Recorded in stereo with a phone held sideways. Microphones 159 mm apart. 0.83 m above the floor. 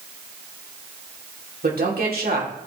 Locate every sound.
1.6 s a woman speaking: 70° right (ahead or behind), 3 m